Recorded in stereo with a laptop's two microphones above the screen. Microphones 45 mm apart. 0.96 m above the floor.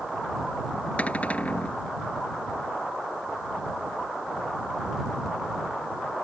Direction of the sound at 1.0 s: 30° left (ahead or behind).